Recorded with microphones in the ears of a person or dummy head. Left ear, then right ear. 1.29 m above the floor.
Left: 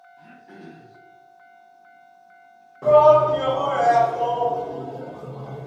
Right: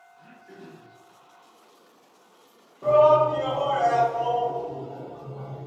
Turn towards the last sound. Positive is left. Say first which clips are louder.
# left 4 dB
turn(degrees=40)  # may be behind; listen again after turning